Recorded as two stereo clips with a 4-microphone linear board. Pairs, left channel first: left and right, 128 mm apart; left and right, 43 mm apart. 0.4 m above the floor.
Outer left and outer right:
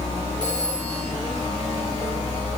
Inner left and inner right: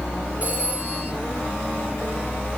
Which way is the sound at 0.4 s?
35° right (ahead or behind).